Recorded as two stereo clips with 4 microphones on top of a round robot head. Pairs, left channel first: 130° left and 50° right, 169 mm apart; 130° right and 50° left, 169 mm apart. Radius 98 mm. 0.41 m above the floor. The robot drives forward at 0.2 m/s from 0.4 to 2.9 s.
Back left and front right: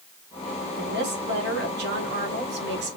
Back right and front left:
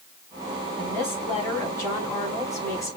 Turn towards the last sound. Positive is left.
turn(degrees=-60)